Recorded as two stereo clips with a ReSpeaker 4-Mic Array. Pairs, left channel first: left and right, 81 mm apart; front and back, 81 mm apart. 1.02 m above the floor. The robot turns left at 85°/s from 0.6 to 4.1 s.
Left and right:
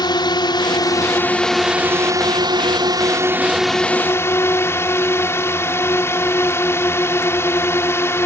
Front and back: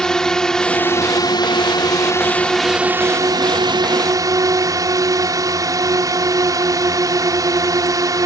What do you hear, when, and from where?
0.0 s a drone: 80° left; by 8.3 s 145° left